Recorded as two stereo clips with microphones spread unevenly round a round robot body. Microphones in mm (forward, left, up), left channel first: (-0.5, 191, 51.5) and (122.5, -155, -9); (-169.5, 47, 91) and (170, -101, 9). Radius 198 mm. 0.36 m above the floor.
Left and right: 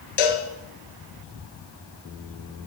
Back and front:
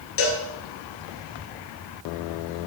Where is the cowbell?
100° left, 2.0 m.